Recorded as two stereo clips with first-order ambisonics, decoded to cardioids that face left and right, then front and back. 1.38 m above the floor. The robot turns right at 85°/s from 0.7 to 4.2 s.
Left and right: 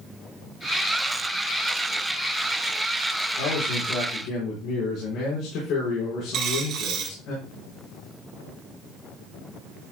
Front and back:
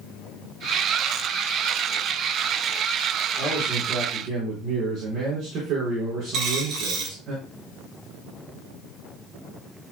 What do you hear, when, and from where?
3.4 s a man speaking: 55° left, 5 m; by 7.3 s 125° left, 5 m
6.3 s a dropped coin: 135° right, 3 m